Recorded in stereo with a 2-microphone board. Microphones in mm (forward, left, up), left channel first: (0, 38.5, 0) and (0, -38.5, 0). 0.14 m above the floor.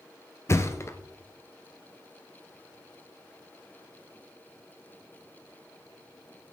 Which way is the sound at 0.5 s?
35° left (ahead or behind).